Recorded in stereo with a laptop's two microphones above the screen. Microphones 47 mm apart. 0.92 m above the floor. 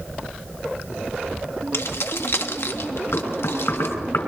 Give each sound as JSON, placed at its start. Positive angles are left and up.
{"t": 1.7, "sound": "keys jangling", "side_deg": 75, "distance_m": 1.1}
{"t": 3.1, "sound": "knocking", "side_deg": 85, "distance_m": 5.0}